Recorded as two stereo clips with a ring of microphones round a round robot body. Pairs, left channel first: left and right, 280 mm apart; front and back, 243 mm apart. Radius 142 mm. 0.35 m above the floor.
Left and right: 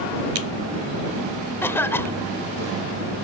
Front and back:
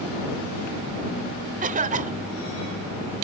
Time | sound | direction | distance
1.6 | a cough | 165° left | ?